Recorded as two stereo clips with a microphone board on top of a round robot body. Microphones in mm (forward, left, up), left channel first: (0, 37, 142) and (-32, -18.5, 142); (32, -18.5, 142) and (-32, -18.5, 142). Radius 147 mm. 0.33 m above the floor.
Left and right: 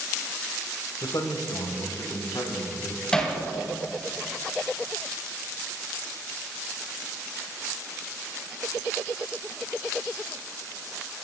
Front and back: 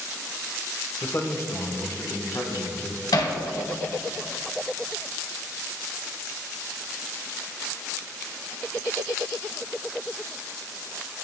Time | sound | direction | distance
1.0 | a man speaking | 50° left | 1.8 m
3.1 | hammering | 15° right | 2 m